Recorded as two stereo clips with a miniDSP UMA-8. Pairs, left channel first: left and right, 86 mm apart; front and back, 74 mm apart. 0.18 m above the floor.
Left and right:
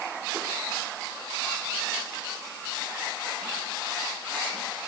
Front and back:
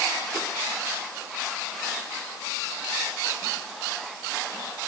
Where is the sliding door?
No sliding door in this recording.